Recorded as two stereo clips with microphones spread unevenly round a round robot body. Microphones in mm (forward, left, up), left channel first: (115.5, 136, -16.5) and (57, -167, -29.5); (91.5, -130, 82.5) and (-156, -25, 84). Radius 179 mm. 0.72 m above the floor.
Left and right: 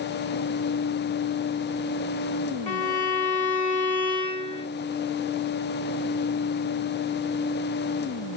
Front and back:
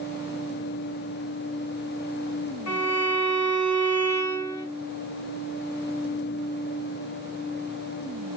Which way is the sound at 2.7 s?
5° left.